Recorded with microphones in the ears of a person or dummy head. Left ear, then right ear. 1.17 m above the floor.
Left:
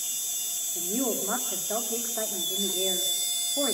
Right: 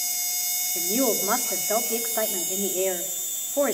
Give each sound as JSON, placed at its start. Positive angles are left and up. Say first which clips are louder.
{"t": 0.8, "sound": "a woman speaking", "louder": "right 6 dB", "side_deg": -65, "distance_m": 2.5}